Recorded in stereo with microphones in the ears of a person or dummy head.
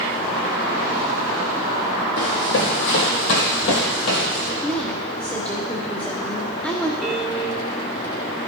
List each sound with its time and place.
2.2 s running footsteps: 60° left (ahead or behind), 4 m; by 4.5 s 35° left (ahead or behind), 2.5 m
4.6 s a woman speaking: 5° left (ahead or behind), 0.9 m
7.0 s a piano: centre (ahead or behind), 1.2 m